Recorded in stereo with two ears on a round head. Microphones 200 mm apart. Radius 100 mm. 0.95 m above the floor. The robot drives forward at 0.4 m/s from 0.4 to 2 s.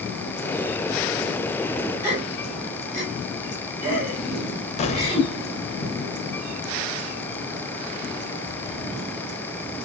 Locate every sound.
2.0 s a gasp: 15° right (ahead or behind), 3 m
4.8 s an explosion: 30° left (ahead or behind), 0.9 m